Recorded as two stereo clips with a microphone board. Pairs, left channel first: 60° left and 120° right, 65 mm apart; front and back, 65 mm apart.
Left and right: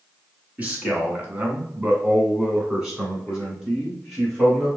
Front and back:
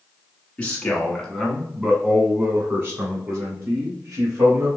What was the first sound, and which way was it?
A man speaking, 60° right.